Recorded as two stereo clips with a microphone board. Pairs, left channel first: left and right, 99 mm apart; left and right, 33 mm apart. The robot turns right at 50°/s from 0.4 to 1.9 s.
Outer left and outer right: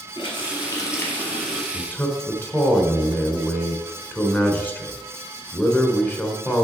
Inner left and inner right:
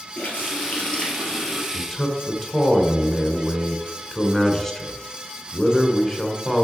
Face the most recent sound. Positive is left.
turn(degrees=20)  # may be behind; listen again after turning